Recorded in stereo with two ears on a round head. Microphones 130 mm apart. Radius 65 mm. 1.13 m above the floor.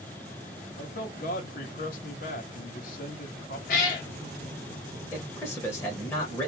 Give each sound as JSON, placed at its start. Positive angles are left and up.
{"t": 0.8, "sound": "a man speaking", "side_deg": 60, "distance_m": 0.8}
{"t": 3.7, "sound": "a cat meowing", "side_deg": 60, "distance_m": 0.9}
{"t": 5.1, "sound": "a man speaking", "side_deg": 15, "distance_m": 0.9}